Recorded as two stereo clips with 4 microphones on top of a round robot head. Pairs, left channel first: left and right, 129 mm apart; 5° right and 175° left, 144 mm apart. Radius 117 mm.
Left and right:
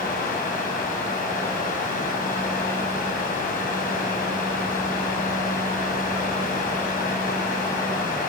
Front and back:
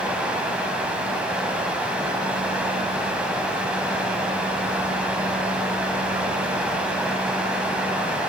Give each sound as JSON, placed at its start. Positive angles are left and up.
{"t": 0.0, "sound": "running water", "azimuth_deg": 95, "distance_m": 4.0}